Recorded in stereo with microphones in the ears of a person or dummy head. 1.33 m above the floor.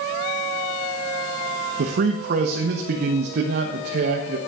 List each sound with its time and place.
1.8 s a man speaking: 65° right (ahead or behind), 1.2 m